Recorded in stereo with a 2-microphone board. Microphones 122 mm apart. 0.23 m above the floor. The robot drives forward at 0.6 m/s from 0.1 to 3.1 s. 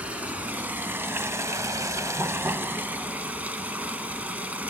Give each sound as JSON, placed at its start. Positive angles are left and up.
{"t": 0.0, "sound": "running water", "side_deg": -10, "distance_m": 1.1}